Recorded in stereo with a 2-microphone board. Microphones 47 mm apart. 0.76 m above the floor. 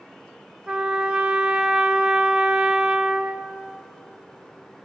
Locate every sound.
0.7 s a trumpet: 20° right (ahead or behind), 0.6 m